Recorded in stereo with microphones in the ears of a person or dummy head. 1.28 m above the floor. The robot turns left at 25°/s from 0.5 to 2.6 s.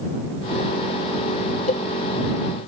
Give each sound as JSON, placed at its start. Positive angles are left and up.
{"t": 1.7, "sound": "a cowbell", "side_deg": 50}